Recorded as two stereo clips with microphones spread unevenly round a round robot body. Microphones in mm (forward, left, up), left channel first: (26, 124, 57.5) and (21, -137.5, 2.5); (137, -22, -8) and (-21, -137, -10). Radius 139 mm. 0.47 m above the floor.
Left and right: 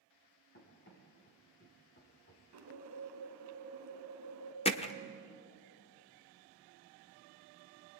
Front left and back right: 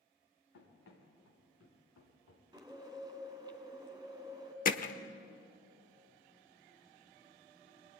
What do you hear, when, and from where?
0.5 s running footsteps: 40° left, 7 m
2.5 s a bird: 75° right, 3 m
4.7 s hammering: 20° left, 1.1 m